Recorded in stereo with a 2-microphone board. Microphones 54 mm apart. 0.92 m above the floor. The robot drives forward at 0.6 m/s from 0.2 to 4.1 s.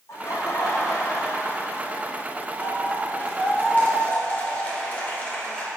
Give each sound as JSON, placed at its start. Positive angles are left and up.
{"t": 0.1, "sound": "laughter", "side_deg": 65, "distance_m": 1.9}